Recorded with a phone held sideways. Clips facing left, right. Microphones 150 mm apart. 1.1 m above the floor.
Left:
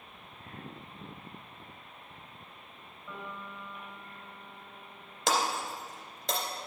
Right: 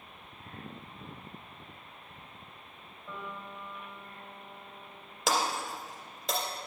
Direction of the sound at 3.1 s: 25° right (ahead or behind).